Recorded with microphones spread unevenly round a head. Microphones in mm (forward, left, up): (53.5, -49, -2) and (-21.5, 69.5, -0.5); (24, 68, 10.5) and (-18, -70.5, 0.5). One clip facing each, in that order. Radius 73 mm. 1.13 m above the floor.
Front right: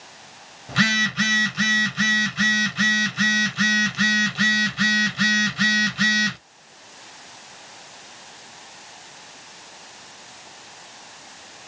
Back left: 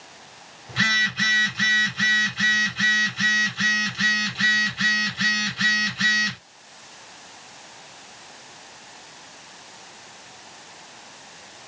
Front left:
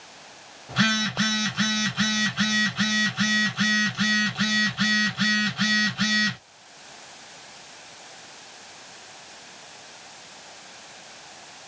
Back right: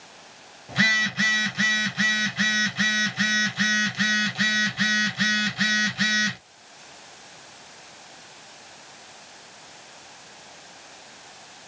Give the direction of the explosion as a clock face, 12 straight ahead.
No explosion in this recording.